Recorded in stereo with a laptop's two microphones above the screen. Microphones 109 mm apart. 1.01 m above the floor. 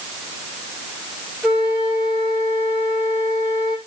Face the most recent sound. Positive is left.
turn(degrees=-10)  # may be behind; listen again after turning